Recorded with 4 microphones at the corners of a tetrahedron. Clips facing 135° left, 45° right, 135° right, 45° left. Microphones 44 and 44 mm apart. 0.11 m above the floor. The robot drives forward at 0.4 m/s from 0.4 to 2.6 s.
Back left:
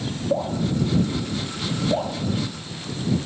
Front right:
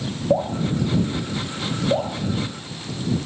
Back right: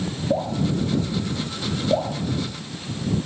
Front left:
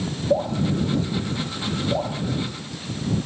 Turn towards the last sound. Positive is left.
turn(degrees=-145)